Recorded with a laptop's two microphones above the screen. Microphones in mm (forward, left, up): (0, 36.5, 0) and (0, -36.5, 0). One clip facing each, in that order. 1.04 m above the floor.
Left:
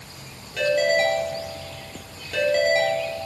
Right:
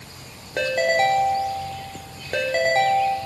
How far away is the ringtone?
About 1.9 m.